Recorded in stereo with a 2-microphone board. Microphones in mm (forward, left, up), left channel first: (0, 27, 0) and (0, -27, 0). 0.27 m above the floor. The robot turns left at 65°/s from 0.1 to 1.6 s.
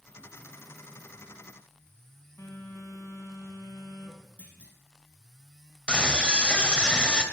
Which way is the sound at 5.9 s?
20° left (ahead or behind).